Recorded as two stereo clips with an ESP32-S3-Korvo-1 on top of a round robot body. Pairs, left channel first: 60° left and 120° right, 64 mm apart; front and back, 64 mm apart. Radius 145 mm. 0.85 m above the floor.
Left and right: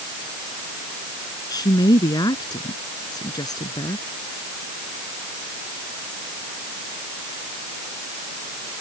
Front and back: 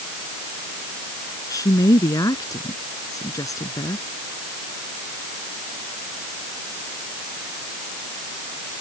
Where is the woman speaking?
35° left.